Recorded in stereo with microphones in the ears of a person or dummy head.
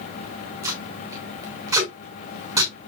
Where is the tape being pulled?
25° right (ahead or behind), 6 m.